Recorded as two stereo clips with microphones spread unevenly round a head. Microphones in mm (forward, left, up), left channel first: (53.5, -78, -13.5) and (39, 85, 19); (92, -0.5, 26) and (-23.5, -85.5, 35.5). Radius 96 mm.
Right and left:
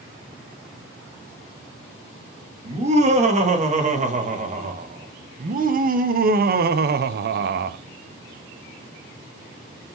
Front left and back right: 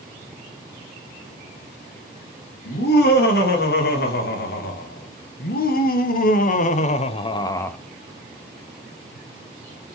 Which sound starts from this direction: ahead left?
Laughter, at 2.6 s.